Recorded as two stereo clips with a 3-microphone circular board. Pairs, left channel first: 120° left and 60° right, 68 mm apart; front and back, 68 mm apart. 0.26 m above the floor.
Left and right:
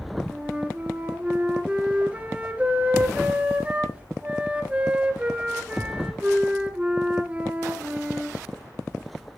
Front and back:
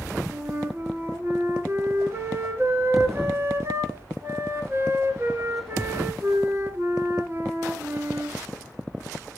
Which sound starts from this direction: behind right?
A flute, at 0.3 s.